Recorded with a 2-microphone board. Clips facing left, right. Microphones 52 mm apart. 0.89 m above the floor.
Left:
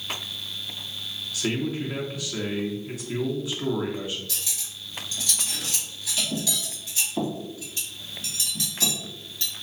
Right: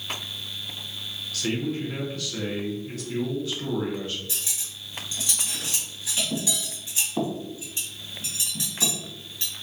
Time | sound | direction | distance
1.3 | a man speaking | 15° left (ahead or behind) | 0.8 m
4.3 | cutlery clinking | 25° right (ahead or behind) | 2.0 m